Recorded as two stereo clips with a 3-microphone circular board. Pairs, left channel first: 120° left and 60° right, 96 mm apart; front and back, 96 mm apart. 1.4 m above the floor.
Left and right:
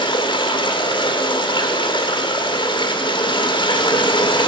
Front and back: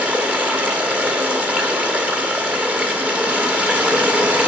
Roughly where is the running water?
Left.